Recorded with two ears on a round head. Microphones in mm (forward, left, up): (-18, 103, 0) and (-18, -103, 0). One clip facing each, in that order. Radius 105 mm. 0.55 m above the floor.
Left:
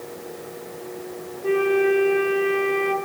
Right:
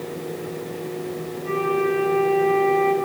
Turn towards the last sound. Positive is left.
turn(degrees=60)  # may be behind; listen again after turning